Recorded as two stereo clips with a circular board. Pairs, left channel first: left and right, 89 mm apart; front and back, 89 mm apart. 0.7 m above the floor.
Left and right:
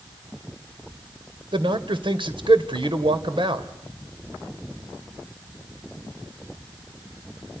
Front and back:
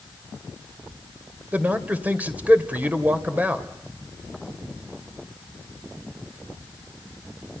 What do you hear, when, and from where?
1.5 s a man speaking: 110° right, 2.5 m